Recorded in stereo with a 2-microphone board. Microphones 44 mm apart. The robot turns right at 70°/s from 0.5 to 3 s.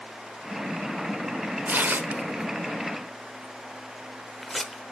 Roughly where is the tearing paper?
Right.